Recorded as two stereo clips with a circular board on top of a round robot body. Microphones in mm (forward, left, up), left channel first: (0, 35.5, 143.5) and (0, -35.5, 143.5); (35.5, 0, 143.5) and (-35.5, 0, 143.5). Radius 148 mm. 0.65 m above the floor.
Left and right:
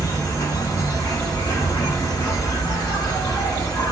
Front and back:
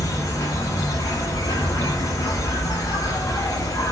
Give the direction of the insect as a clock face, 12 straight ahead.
10 o'clock.